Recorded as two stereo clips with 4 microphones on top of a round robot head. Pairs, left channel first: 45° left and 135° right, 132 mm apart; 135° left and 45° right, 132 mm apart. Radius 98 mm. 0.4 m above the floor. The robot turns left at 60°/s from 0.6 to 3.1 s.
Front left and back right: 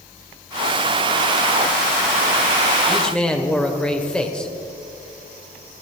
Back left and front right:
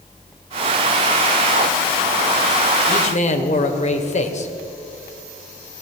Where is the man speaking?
140° left, 1.5 m; by 4.5 s 125° left, 1.5 m.